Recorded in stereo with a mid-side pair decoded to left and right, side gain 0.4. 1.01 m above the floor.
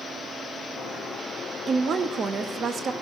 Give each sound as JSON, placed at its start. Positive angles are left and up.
{"t": 1.7, "sound": "a woman speaking", "azimuth_deg": -55, "distance_m": 1.1}